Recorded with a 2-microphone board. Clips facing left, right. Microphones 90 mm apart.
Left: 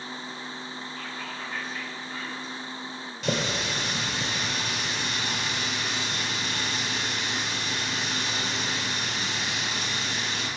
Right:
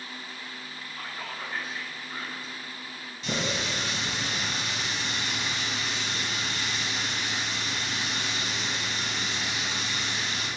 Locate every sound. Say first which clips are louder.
1.0 s whispering: right 3 dB; 10° right (ahead or behind), 2.5 m
3.2 s a running tap: left 2 dB; 75° left (ahead or behind), 1.8 m